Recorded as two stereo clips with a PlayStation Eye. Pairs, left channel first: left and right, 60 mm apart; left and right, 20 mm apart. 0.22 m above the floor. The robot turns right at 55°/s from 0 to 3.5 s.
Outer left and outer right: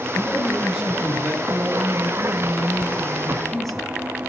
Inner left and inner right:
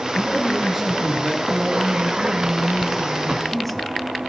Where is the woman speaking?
105° right, 1.6 m; by 3.9 s 5° left, 1.6 m.